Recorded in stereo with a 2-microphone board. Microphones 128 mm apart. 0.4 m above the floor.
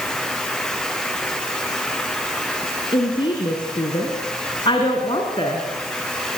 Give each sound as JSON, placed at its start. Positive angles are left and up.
{"t": 2.9, "sound": "a woman speaking", "side_deg": 40, "distance_m": 4.0}